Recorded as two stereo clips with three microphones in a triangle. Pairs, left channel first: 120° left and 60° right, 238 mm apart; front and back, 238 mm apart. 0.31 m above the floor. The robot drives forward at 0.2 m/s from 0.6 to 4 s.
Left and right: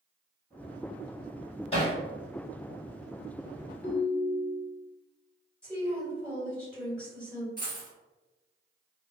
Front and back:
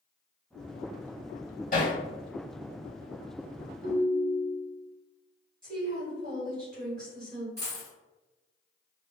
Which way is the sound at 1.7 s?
55° left.